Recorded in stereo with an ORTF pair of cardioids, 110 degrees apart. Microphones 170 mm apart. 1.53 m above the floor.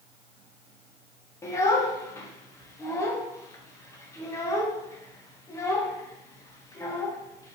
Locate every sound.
1.4 s a child speaking: 20° left, 0.9 m